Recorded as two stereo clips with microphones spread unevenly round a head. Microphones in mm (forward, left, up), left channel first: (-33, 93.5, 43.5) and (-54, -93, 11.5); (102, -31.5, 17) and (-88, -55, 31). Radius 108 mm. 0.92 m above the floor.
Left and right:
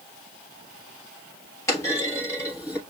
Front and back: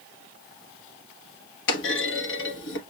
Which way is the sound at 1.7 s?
5° left.